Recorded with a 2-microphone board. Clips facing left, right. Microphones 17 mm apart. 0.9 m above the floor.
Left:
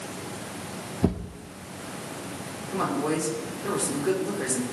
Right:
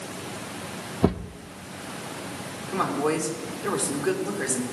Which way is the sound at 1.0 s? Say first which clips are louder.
Right 3 dB; 35° right (ahead or behind).